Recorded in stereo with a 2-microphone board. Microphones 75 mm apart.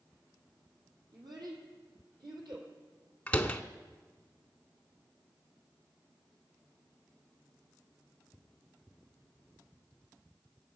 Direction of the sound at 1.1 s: 70° right (ahead or behind).